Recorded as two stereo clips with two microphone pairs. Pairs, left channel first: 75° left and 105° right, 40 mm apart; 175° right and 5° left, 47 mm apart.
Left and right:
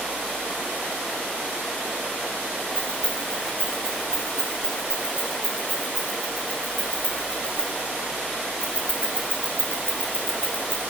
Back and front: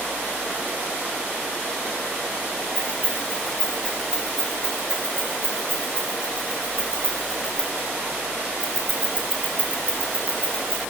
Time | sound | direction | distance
2.8 | keys jangling | 35° right | 4 m